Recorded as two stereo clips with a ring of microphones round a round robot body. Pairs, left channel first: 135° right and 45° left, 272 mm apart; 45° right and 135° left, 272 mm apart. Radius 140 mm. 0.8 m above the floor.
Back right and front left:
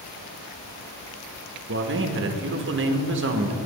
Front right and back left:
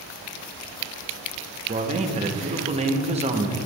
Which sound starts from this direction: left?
A man speaking, at 1.7 s.